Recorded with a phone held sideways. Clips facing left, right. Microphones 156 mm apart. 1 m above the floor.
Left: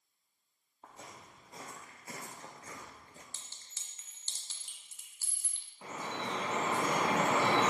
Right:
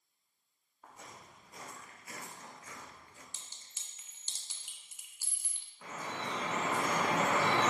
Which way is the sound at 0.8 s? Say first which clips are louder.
Left 1 dB; 25° left (ahead or behind).